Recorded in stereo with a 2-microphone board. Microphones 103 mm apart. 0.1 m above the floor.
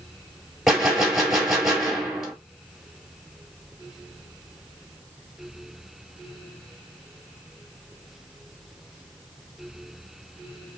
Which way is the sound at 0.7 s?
Centre (ahead or behind).